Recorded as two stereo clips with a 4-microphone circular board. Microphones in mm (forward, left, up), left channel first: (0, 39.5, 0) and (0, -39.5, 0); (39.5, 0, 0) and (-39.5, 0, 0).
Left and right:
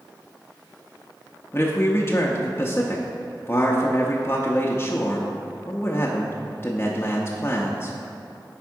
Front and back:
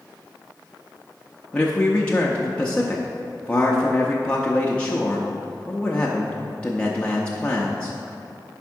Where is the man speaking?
60° left, 0.6 m.